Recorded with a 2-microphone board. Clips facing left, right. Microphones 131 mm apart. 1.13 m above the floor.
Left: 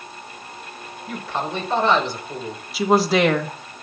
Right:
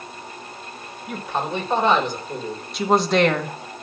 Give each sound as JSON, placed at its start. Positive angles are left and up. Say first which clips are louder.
{"t": 1.1, "sound": "a man speaking", "louder": "right 1 dB", "side_deg": -20, "distance_m": 3.5}
{"t": 2.7, "sound": "a woman speaking", "louder": "left 1 dB", "side_deg": 5, "distance_m": 1.6}